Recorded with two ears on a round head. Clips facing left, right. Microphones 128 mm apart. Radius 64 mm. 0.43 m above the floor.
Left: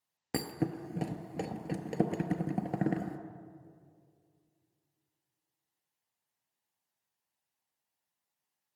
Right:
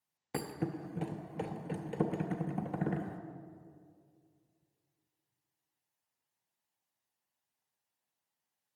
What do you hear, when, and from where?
0.3 s a thud: 55° left (ahead or behind), 0.6 m